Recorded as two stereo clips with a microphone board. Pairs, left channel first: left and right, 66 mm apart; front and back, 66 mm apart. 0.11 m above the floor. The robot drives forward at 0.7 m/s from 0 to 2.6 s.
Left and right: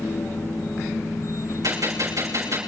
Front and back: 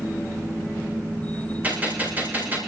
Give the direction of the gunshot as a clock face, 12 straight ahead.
4 o'clock.